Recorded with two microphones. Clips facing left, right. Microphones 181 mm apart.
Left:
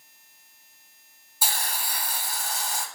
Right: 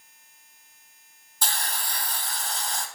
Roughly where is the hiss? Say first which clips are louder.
Even; centre.